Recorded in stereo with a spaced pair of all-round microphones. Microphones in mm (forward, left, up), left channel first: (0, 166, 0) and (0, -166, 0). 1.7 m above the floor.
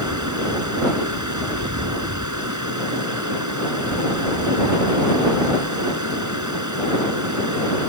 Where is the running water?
60° right (ahead or behind).